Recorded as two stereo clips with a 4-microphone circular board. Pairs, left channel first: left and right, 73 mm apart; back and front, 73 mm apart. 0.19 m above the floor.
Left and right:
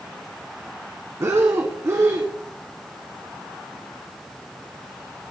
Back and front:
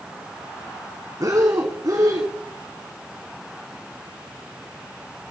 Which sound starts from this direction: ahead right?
Breathing, at 1.2 s.